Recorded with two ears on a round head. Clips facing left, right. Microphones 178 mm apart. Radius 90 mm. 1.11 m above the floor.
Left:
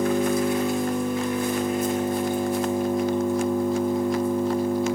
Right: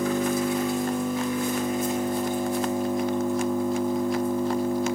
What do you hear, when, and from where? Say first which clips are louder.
0.0 s an engine running: left 2 dB; 55° left (ahead or behind), 6.5 m